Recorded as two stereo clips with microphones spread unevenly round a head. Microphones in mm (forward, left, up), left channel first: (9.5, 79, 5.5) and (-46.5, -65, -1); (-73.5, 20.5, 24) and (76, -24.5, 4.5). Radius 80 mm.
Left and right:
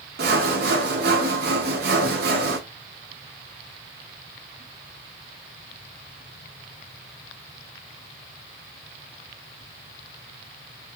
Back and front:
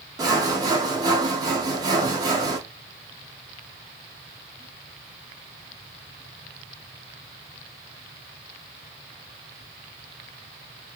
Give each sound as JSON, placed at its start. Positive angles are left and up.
{"t": 0.2, "sound": "sawing", "azimuth_deg": -85, "distance_m": 0.6}